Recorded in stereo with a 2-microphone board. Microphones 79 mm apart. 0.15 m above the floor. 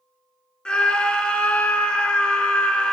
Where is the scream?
10° left (ahead or behind), 1.6 m.